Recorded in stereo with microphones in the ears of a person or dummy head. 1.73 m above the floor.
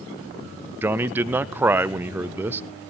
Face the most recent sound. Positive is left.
turn(degrees=-10)  # may be behind; listen again after turning